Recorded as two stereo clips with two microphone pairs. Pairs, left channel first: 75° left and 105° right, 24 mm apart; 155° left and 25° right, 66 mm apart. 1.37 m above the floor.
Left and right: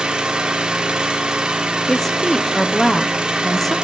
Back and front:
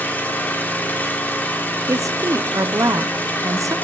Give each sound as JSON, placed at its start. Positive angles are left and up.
{"t": 0.0, "sound": "an engine running", "azimuth_deg": -150, "distance_m": 1.6}
{"t": 1.9, "sound": "a woman speaking", "azimuth_deg": -5, "distance_m": 0.6}